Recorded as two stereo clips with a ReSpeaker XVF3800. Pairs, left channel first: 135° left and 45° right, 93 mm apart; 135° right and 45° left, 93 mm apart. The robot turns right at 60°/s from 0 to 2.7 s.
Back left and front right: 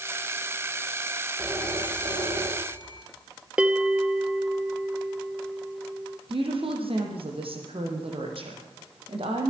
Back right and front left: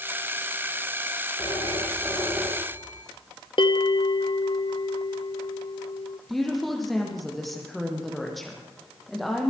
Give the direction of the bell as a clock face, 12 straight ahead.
4 o'clock.